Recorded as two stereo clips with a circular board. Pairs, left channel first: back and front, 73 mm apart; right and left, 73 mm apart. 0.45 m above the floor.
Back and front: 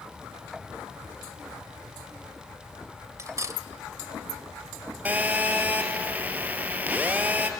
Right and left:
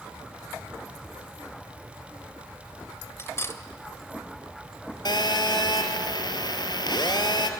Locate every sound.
3.2 s cutlery clinking: 40° right, 1.1 m
5.0 s a phone buzzing: 70° right, 2.0 m